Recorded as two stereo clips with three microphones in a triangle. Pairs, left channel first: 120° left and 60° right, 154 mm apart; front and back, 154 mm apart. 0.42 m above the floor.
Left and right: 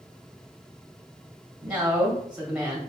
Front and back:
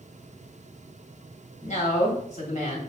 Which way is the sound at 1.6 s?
20° left.